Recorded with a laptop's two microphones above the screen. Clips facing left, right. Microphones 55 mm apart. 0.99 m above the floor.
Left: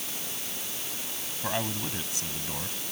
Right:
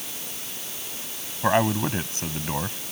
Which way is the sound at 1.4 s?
40° right (ahead or behind).